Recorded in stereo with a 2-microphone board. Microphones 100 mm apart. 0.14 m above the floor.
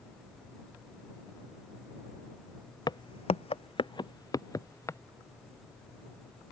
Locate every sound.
2.9 s footsteps: 45° left (ahead or behind); by 5.0 s 30° left (ahead or behind)